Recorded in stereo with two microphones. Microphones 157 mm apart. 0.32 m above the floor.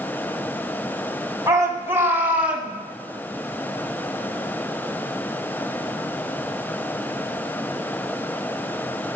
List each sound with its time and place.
1.5 s a shout: 25° right (ahead or behind), 2.5 m; by 2.7 s centre (ahead or behind), 2 m